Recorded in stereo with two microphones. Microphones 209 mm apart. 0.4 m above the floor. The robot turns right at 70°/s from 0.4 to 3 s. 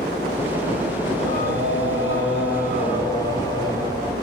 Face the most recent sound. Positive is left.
turn(degrees=160)